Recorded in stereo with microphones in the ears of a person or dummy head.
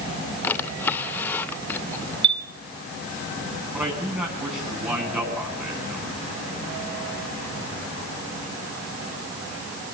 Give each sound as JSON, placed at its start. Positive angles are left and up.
{"t": 0.4, "sound": "a drawer", "side_deg": 10, "distance_m": 2.5}
{"t": 2.2, "sound": "a chime", "side_deg": -25, "distance_m": 1.7}
{"t": 3.7, "sound": "a man speaking", "side_deg": -20, "distance_m": 8.5}